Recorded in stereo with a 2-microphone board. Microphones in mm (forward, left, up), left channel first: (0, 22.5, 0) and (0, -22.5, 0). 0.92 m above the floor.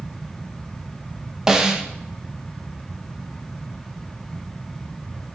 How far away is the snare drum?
About 0.7 m.